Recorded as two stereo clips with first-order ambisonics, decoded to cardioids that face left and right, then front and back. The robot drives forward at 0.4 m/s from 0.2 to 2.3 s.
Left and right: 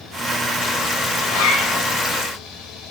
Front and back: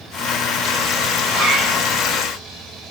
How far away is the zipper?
About 6.5 m.